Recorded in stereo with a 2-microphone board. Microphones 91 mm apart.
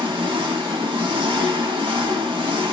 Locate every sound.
0.0 s an engine running: 70° right (ahead or behind), 1.1 m